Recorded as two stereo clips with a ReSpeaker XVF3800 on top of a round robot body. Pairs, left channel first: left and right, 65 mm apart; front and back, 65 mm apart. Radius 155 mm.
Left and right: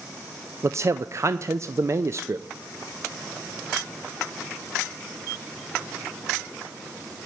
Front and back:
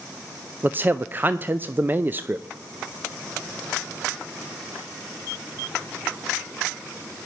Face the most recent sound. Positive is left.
turn(degrees=-125)